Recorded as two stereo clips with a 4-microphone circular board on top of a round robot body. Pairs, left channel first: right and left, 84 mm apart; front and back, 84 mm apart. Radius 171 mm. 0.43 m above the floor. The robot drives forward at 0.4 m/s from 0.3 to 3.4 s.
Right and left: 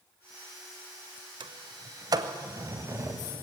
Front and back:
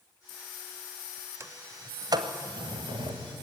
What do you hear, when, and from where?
1.4 s a sliding door: 120° left, 0.8 m; by 3.4 s 150° left, 1.3 m